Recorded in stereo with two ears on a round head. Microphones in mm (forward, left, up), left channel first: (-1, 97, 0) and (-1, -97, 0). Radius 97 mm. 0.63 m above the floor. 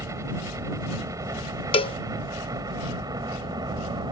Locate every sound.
0.0 s a helicopter: 15° right (ahead or behind)
1.7 s a cowbell: 25° left (ahead or behind)